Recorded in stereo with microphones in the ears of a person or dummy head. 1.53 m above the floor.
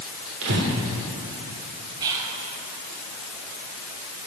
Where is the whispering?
15° right (ahead or behind), 1.8 m.